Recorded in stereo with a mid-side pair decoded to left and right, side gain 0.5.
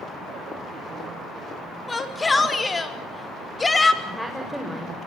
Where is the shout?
20° left, 5 m.